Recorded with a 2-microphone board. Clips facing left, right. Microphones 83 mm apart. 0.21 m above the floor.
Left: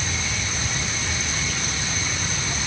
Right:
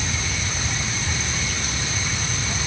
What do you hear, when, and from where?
Only background noise.